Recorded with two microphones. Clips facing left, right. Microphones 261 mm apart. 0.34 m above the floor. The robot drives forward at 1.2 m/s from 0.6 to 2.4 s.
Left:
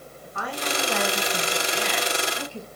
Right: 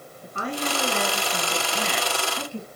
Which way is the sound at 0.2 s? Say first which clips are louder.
Right 3 dB; 30° right (ahead or behind).